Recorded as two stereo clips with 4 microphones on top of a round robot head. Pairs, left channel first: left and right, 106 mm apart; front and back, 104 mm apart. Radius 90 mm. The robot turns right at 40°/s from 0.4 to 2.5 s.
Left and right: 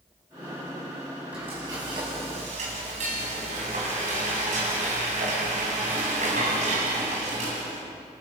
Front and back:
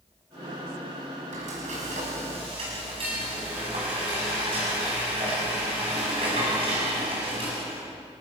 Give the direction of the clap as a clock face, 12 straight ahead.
No clap in this recording.